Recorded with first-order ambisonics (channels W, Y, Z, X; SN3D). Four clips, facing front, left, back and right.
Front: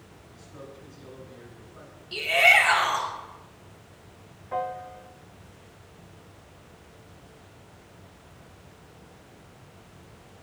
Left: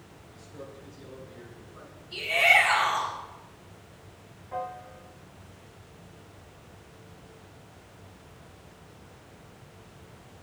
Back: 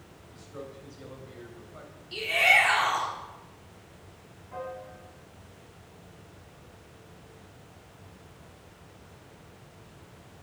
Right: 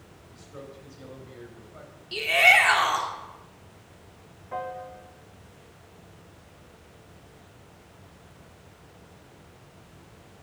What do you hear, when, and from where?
0.3 s a man speaking: 110° right, 3 m; by 2.0 s 135° right, 3 m
2.1 s a shout: 75° right, 1.7 m
4.5 s a piano: 20° right, 0.7 m